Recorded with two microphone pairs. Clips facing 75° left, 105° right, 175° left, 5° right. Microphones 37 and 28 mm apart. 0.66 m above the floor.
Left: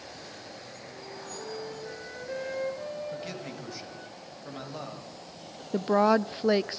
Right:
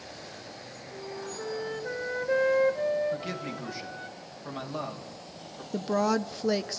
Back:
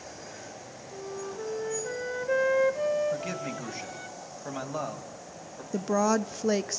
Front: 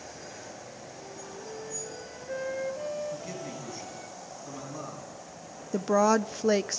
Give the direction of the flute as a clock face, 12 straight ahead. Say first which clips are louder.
Right 5 dB, back 10 dB; 5 o'clock.